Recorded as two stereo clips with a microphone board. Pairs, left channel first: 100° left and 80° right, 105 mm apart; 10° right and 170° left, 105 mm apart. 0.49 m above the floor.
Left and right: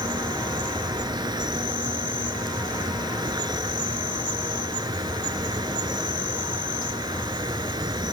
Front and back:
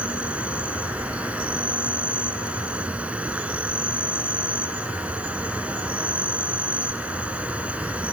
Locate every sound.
0.0 s an insect: 115° right, 0.7 m